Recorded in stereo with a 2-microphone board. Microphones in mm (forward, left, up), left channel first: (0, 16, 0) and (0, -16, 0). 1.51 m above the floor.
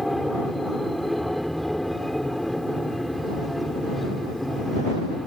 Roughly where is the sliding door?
No sliding door in this recording.